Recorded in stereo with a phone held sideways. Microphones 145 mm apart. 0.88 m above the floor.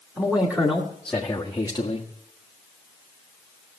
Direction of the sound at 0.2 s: 10° right (ahead or behind).